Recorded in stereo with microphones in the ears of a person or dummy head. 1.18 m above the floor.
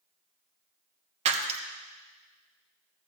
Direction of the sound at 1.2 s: 35° right (ahead or behind).